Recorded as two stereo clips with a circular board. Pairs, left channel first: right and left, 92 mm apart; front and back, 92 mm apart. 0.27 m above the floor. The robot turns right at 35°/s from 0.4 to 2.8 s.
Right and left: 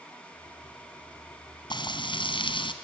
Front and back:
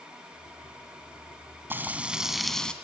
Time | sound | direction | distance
1.7 | frying | 115° right | 2.5 m